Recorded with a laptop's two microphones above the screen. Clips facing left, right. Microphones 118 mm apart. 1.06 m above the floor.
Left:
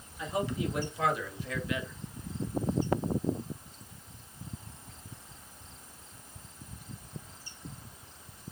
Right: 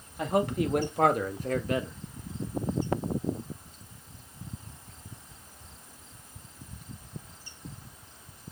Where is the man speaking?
60° right (ahead or behind), 2 m; by 1.9 s 35° right (ahead or behind), 1.3 m.